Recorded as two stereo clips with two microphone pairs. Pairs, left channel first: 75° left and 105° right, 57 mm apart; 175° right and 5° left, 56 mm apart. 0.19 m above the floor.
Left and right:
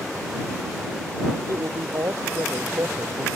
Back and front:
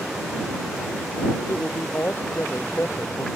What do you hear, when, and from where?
1.5 s a woman speaking: 130° right